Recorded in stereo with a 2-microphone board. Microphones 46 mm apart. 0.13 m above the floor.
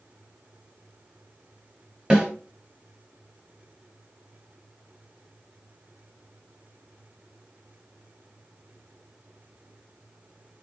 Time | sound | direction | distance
2.1 | a snare drum | 15° right (ahead or behind) | 1.5 m